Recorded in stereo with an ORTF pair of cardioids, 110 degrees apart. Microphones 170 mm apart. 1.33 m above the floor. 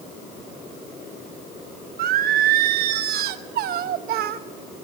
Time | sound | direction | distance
2.0 | singing | 70° right | 1.1 m